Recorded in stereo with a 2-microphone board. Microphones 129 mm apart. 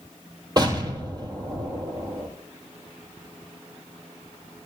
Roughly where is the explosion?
Right.